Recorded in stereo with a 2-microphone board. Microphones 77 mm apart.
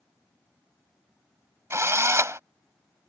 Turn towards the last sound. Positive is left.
turn(degrees=-40)  # may be behind; listen again after turning